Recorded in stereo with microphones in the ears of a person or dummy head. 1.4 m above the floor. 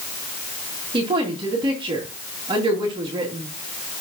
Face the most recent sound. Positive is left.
turn(degrees=-25)  # may be behind; listen again after turning